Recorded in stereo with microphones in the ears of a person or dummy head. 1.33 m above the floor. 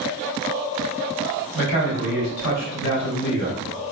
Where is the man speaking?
65° left (ahead or behind), 1.8 m.